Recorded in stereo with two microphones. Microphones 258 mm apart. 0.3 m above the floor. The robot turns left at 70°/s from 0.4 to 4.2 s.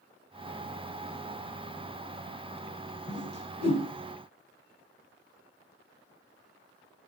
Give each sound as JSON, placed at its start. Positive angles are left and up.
{"t": 3.1, "sound": "a whoosh", "side_deg": 60, "distance_m": 3.0}